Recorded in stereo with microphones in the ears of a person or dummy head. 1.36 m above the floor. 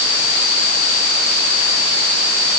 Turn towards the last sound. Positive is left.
No sound to turn to.